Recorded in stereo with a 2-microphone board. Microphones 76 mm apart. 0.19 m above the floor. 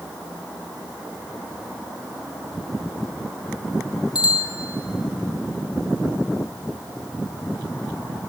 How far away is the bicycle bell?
About 4 m.